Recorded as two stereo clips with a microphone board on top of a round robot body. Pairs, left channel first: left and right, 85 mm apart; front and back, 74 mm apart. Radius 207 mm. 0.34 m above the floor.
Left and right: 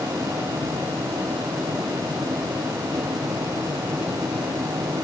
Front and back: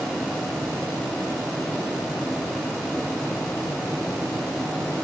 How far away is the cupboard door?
No cupboard door in this recording.